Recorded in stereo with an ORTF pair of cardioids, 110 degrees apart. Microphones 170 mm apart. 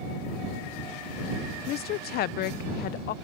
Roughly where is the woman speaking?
Left.